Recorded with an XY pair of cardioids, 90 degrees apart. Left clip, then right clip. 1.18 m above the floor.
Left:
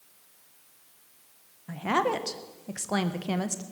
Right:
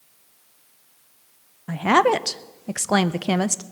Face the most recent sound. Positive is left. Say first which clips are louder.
# right 9 dB
turn(degrees=-60)